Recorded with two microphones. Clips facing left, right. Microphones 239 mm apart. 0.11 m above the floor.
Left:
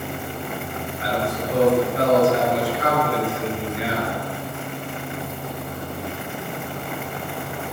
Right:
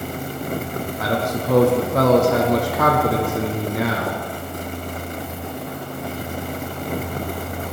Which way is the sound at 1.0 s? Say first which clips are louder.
Right 2 dB; 75° right (ahead or behind).